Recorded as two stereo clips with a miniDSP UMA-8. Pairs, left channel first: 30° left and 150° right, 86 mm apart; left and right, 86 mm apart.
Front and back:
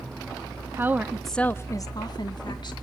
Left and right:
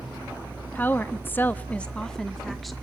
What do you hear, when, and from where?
0.8 s a woman speaking: 155° left, 0.9 m; by 2.7 s straight ahead, 1.5 m